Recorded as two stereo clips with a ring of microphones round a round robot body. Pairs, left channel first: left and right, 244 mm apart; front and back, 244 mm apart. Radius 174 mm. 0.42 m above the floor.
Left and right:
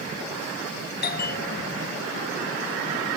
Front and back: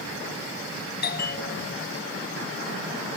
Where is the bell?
45° left.